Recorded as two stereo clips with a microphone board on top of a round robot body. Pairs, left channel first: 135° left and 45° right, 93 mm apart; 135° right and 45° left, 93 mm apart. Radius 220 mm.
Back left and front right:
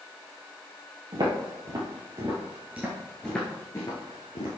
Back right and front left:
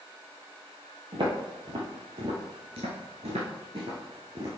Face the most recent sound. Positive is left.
turn(degrees=105)